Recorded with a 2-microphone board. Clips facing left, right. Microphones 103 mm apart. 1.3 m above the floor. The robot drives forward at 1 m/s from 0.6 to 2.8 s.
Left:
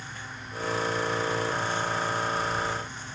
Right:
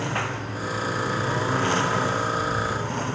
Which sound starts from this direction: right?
A lawn mower, at 0.0 s.